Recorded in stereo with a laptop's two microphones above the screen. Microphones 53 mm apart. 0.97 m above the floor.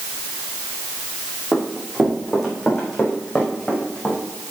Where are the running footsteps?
5° right (ahead or behind), 4 m; by 4.2 s 15° left (ahead or behind), 4.5 m.